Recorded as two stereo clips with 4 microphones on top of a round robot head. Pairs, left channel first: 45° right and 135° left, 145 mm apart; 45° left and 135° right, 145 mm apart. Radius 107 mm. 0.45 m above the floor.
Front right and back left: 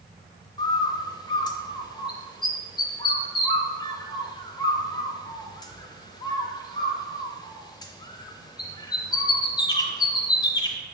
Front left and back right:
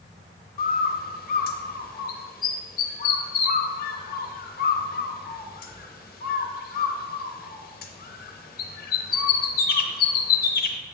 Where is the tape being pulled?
I don't hear tape being pulled.